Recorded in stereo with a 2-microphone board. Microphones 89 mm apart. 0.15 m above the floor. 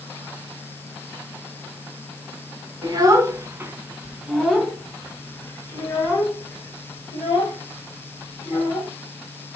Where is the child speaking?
45° right (ahead or behind), 1.1 m; by 8.9 s 45° left (ahead or behind), 3 m.